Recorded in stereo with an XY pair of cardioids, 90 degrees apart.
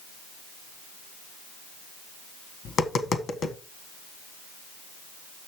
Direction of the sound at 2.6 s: 65° left.